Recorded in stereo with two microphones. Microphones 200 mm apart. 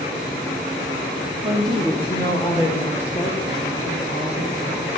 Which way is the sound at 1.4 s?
10° right (ahead or behind).